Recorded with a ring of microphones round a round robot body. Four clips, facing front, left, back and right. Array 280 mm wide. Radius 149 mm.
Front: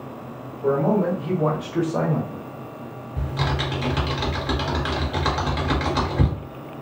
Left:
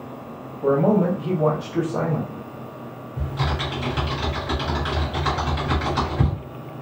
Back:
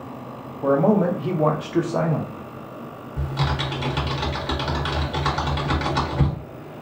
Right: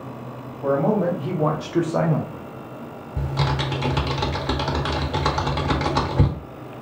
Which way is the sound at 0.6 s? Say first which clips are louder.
Left 2 dB, back 2 dB; 150° left.